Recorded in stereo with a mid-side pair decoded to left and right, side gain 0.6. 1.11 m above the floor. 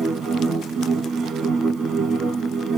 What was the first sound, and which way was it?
A machine running, 45° right.